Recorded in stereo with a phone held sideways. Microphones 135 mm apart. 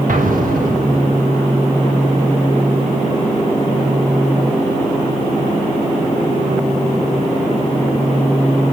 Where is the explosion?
75° right (ahead or behind), 1.5 m.